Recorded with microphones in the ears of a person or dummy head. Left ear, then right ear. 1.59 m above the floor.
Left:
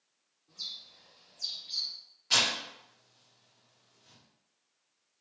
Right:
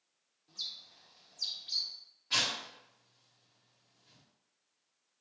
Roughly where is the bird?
Right.